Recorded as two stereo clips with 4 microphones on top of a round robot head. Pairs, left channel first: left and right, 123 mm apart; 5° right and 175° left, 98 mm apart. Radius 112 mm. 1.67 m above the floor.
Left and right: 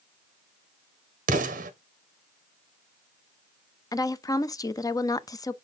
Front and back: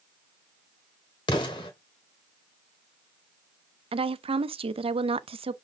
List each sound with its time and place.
1.3 s an explosion: 60° right, 1.0 m
3.9 s a woman speaking: 155° left, 0.7 m